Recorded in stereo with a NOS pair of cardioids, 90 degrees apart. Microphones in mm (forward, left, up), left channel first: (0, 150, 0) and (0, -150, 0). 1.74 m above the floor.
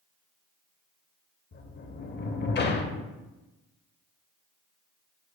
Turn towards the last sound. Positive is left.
turn(degrees=35)